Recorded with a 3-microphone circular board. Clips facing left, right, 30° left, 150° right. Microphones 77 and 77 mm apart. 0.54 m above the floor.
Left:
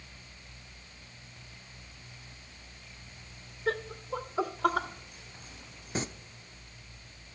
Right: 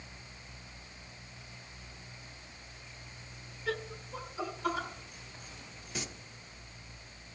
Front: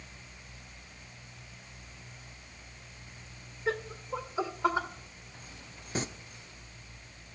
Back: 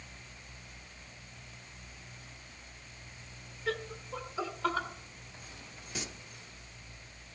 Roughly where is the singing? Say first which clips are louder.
Left 7 dB, front 8 dB; ahead left.